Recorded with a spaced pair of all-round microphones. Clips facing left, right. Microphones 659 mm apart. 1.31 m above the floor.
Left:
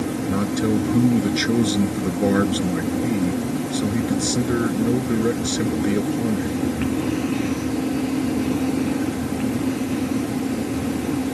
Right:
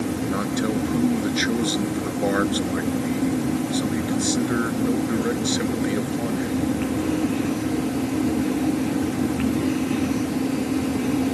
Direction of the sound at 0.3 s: 55° left (ahead or behind).